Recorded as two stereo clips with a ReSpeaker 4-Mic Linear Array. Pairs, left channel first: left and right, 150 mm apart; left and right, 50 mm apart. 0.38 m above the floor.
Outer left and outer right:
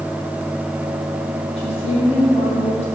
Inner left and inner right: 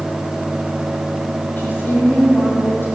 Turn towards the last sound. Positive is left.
turn(degrees=45)  # may be behind; listen again after turning